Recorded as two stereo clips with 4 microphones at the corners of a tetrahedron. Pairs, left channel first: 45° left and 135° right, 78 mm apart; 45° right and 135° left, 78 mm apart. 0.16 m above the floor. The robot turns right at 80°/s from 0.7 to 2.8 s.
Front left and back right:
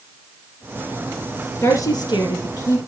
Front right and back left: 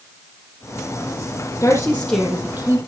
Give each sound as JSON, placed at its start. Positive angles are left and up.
{"t": 1.6, "sound": "a woman speaking", "azimuth_deg": -5, "distance_m": 4.5}